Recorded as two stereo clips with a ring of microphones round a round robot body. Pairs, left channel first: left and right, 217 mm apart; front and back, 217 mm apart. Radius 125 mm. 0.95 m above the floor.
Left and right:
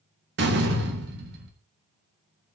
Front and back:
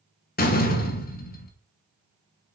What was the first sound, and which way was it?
A door slam, 45° right.